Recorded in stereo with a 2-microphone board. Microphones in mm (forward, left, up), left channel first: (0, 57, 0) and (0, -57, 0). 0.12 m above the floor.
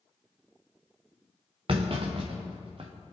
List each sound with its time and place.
1.7 s a clunk: 55° right (ahead or behind), 2.0 m